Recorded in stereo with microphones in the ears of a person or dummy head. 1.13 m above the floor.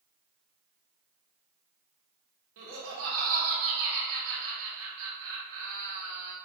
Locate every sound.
2.6 s laughter: 90° right, 1.3 m